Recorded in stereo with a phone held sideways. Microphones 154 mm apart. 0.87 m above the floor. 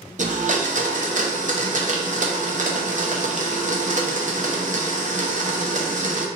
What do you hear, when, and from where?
0.2 s a blender: 55° right (ahead or behind), 0.6 m